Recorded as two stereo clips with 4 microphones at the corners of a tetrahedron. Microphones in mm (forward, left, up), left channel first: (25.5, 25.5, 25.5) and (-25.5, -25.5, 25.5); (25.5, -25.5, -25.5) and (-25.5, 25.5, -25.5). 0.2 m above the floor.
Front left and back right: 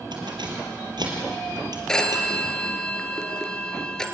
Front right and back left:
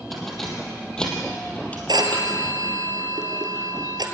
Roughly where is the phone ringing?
Behind left.